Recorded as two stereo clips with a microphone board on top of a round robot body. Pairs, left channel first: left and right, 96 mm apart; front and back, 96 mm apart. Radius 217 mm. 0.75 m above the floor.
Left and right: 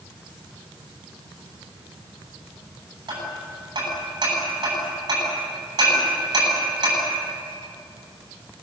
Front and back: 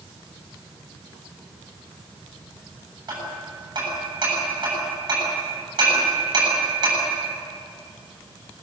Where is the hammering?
135° right, 8.5 m.